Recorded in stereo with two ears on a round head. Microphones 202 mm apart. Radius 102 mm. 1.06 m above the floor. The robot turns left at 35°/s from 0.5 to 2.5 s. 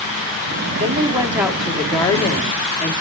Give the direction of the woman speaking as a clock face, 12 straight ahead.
5 o'clock.